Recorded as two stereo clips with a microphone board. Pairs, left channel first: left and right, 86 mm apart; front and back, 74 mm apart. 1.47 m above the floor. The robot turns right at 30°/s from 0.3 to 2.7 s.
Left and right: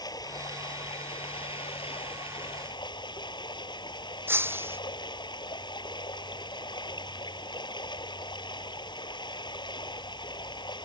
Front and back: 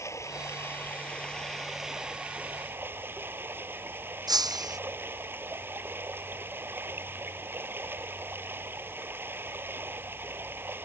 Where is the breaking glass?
155° right.